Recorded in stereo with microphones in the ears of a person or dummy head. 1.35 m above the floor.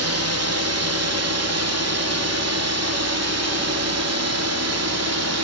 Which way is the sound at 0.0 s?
65° right (ahead or behind).